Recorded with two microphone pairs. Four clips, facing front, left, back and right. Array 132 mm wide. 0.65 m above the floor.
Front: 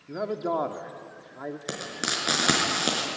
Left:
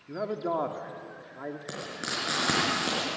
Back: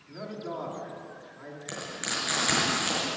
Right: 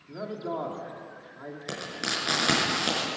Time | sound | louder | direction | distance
0.1 | a man speaking | left 3 dB, front 9 dB | 20° left | 1.8 m
1.7 | frying | right 2 dB, back 1 dB | 10° right | 5 m